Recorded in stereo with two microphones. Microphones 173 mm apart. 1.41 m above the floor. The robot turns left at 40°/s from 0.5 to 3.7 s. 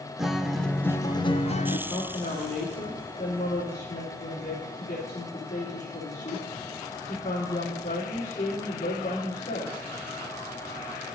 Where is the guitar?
Straight behind, 0.6 m; by 1.8 s 130° left, 0.6 m.